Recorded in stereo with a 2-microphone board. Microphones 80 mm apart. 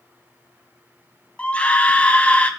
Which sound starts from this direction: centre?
A scream, at 1.4 s.